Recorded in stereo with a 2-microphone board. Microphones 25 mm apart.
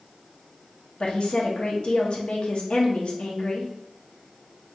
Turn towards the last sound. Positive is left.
turn(degrees=50)  # may be behind; listen again after turning